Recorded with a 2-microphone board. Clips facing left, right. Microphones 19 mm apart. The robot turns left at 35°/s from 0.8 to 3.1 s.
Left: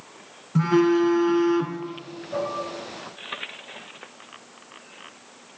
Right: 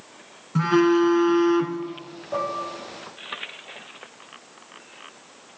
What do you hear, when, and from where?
0.6 s a phone buzzing: 15° right (ahead or behind), 0.8 m; by 1.8 s 5° right (ahead or behind), 0.8 m
2.3 s dishes clattering: 35° right (ahead or behind), 3.5 m; by 2.6 s 45° right (ahead or behind), 3.5 m